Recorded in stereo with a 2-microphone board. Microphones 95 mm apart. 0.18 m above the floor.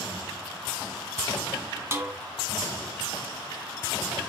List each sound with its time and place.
1.9 s a snare drum: 25° right (ahead or behind), 0.8 m